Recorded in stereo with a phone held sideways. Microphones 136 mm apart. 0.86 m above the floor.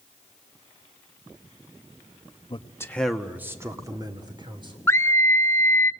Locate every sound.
2.5 s a man speaking: 40° left (ahead or behind), 1.1 m; by 4.8 s 35° right (ahead or behind), 3.5 m
4.9 s a scream: 20° left (ahead or behind), 0.9 m